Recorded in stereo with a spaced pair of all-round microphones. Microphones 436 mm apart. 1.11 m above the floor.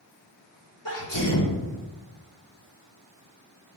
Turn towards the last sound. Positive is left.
turn(degrees=80)